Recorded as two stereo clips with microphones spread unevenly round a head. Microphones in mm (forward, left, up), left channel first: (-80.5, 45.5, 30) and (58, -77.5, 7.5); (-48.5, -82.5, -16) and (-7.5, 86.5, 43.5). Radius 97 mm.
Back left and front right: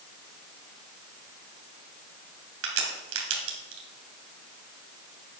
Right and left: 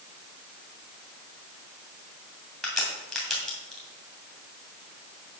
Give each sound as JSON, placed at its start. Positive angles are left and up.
{"t": 2.6, "sound": "a crack", "azimuth_deg": -10, "distance_m": 2.0}